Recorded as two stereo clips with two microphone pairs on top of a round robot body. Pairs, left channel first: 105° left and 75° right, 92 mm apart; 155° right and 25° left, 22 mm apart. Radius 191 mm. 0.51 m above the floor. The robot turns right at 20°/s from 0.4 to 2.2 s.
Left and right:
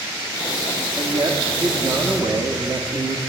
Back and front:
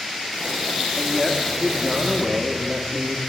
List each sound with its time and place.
1.0 s a man speaking: 65° right, 1.6 m; by 3.2 s 40° right, 1.6 m